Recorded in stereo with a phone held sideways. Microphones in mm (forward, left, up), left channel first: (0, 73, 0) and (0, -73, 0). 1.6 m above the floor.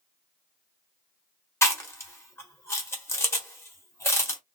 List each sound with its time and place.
1.6 s chewing: 20° left (ahead or behind), 1.3 m